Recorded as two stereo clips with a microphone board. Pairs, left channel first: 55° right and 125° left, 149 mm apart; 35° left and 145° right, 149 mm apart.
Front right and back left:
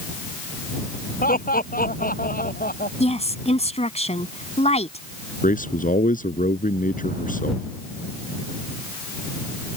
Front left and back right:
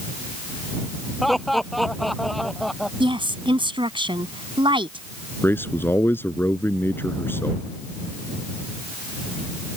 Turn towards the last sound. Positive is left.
turn(degrees=-40)